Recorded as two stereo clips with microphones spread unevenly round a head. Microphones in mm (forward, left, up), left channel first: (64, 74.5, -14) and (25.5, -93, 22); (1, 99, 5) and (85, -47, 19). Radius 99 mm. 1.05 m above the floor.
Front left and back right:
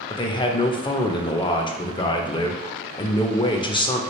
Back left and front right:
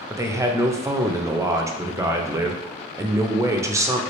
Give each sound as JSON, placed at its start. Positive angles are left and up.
{"t": 0.1, "sound": "a man speaking", "azimuth_deg": 15, "distance_m": 0.5}